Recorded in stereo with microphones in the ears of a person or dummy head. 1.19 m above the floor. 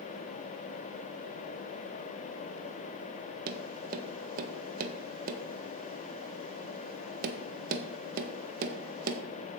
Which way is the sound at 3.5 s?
45° right (ahead or behind).